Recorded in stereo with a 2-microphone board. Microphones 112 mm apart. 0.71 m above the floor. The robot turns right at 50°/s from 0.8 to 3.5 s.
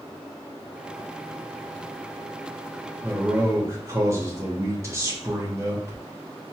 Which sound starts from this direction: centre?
A man speaking, at 3.0 s.